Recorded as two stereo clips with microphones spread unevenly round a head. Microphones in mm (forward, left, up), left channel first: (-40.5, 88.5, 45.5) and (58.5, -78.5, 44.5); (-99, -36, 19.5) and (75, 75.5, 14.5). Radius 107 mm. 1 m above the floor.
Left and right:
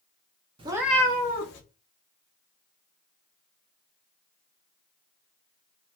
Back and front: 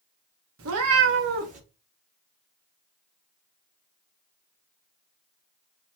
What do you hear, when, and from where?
0.6 s a cat meowing: 5° left, 0.6 m; by 1.6 s 90° left, 0.7 m